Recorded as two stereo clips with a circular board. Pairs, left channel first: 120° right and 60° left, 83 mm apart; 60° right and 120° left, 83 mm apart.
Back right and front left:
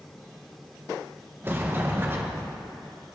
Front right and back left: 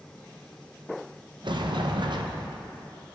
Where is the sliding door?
120° left, 0.8 m.